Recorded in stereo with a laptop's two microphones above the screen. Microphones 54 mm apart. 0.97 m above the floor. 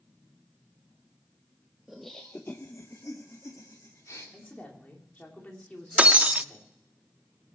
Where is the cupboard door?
I don't hear a cupboard door.